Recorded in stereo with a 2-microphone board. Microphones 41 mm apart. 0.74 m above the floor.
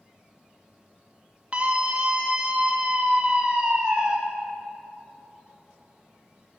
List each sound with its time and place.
1.5 s a scream: 30° right (ahead or behind), 1.3 m; by 4.2 s 25° right (ahead or behind), 3 m